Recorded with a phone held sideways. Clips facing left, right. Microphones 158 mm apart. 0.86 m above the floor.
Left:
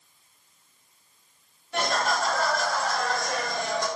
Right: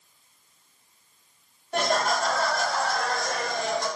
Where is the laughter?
50° right (ahead or behind), 1.6 m; by 3.9 s 60° right (ahead or behind), 3 m.